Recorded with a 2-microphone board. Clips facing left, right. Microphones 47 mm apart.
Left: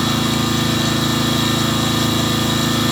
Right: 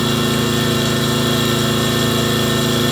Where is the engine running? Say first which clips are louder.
Right 1 dB; 20° right (ahead or behind), 9.5 m.